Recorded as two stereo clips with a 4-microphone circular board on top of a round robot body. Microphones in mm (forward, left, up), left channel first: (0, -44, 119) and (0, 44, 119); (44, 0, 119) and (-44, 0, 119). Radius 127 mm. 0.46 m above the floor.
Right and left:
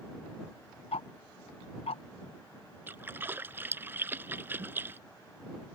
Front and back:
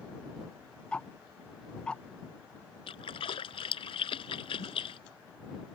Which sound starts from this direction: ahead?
A splash, at 2.9 s.